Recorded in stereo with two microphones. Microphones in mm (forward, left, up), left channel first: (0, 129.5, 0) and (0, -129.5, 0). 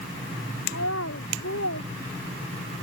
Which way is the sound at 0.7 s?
65° left (ahead or behind).